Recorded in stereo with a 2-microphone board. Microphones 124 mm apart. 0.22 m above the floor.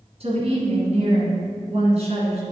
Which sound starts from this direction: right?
A woman speaking, at 0.2 s.